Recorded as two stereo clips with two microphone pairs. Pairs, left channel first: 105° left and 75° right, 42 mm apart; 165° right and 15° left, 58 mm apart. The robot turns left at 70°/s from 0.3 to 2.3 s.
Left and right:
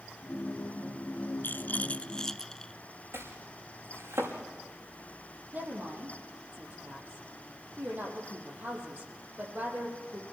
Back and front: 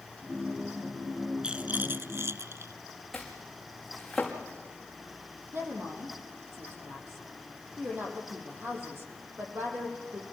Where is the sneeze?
I don't hear a sneeze.